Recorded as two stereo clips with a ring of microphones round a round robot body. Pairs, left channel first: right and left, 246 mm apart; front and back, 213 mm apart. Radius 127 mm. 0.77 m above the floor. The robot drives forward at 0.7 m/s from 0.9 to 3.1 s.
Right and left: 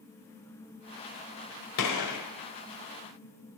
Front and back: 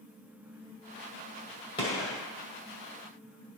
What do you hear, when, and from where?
1.8 s a gunshot: 75° right, 1.6 m; by 2.2 s 85° right, 1.6 m